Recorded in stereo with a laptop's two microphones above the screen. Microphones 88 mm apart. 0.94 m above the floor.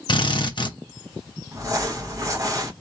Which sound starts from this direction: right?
Crumpling, at 1.5 s.